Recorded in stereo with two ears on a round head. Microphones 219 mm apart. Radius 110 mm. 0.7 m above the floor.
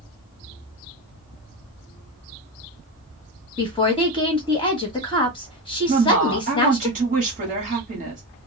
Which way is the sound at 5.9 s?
35° right (ahead or behind).